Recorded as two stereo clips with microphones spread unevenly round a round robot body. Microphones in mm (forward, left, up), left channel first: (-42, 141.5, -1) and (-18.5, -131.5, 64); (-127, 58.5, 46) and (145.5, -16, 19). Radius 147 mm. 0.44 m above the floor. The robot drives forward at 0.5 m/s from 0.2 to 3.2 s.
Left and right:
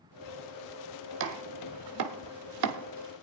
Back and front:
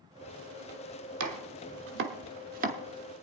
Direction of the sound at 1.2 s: 35° right.